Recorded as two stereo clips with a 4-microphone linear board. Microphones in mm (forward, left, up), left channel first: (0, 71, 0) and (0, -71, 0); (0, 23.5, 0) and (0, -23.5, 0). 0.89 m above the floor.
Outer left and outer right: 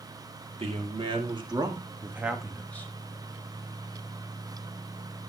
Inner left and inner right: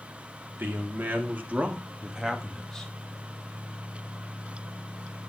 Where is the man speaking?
45° right (ahead or behind), 2.5 m; by 2.9 s 15° left (ahead or behind), 1.2 m.